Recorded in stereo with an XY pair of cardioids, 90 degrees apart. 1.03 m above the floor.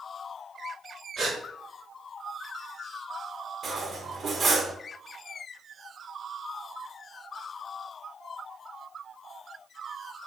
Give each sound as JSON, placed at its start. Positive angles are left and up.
{"t": 1.2, "sound": "a gasp", "azimuth_deg": -50, "distance_m": 1.4}
{"t": 3.6, "sound": "cutlery clinking", "azimuth_deg": -50, "distance_m": 0.8}